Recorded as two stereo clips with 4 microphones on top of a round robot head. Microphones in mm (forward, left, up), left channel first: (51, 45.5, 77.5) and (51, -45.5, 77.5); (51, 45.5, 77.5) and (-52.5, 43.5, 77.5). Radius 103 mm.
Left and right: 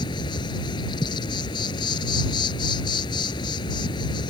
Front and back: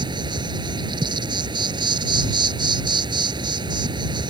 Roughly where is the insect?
Behind left.